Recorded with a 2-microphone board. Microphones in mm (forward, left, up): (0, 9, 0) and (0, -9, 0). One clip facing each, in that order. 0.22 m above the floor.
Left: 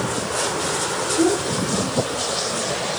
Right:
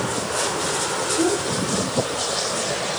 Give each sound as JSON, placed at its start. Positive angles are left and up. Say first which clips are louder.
{"t": 1.2, "sound": "a child speaking", "louder": "left 3 dB", "side_deg": 45, "distance_m": 8.0}